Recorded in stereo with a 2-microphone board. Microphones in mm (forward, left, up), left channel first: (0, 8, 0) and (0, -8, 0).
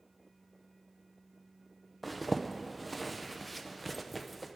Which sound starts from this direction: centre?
A zipper, at 2.0 s.